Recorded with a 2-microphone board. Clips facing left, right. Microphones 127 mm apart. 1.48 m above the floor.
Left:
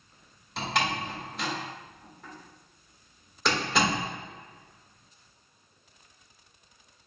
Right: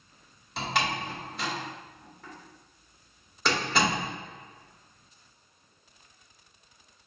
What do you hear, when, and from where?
0.6 s a door slam: centre (ahead or behind), 1.3 m